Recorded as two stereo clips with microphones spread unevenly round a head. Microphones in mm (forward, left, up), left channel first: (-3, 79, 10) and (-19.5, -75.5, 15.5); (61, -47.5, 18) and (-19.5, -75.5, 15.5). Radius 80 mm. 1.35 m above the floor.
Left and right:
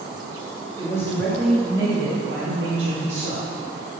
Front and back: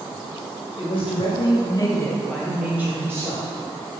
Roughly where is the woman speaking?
Ahead.